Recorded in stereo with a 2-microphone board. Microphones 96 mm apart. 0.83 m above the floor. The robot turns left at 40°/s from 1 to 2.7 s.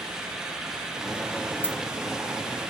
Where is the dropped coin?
20° left (ahead or behind), 2 m; by 1.8 s 15° left (ahead or behind), 2 m.